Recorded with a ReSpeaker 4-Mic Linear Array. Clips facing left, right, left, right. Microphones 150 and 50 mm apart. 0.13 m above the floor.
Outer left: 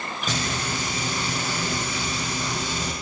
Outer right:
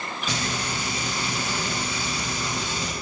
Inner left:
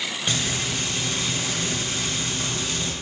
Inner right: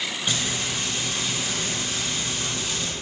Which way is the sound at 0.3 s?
45° left (ahead or behind).